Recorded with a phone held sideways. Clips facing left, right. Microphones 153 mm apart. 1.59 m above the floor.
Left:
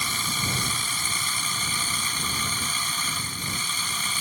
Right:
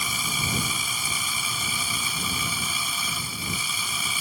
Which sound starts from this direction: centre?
A machine running, at 0.0 s.